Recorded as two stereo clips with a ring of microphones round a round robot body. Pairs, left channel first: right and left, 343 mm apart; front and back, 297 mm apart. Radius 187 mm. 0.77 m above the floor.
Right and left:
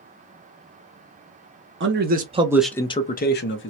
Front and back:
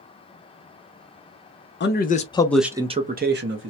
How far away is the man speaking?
About 0.7 m.